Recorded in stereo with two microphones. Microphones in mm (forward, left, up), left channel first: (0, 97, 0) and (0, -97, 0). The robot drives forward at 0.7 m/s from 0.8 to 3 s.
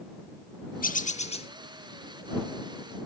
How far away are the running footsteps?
I don't hear running footsteps.